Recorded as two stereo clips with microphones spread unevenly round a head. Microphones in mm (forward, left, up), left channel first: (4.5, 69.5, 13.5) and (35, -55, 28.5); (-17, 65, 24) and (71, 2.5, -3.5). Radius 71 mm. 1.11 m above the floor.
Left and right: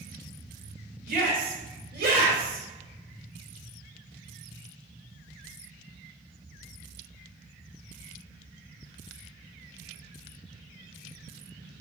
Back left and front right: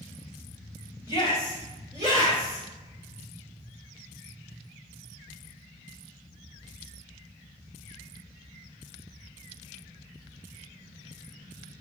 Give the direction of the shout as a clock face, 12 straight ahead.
4 o'clock.